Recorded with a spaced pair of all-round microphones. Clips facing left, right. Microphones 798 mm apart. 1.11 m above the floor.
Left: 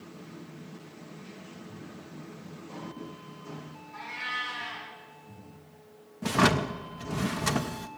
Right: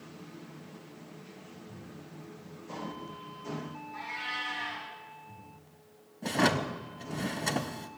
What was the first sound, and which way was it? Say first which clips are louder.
A cat meowing: even; 80° left.